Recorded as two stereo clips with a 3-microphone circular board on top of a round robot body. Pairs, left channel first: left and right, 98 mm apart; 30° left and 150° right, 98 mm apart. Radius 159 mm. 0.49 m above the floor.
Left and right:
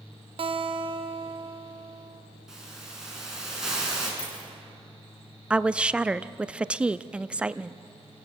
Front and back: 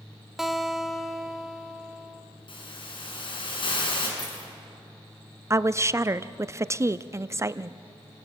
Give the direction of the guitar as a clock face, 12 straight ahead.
2 o'clock.